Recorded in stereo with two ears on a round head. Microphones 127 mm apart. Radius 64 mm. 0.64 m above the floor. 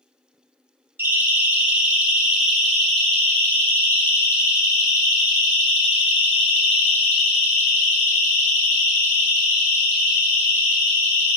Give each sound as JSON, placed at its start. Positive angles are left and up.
{"t": 1.0, "sound": "a siren", "side_deg": -15, "distance_m": 5.0}